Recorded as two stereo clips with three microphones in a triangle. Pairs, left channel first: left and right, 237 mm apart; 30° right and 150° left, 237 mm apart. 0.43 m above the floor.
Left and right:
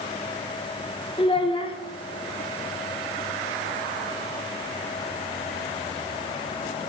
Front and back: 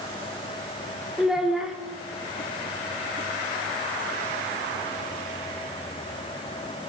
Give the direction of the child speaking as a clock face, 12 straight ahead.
10 o'clock.